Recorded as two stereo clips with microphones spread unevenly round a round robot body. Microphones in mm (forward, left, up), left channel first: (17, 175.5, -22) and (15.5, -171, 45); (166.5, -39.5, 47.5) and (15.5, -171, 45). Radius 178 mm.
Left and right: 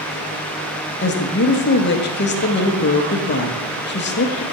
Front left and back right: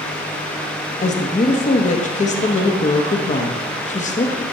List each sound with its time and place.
1.0 s a woman speaking: 75° left, 1.0 m